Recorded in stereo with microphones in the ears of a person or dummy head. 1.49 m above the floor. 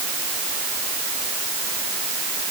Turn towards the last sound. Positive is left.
No sound to turn to.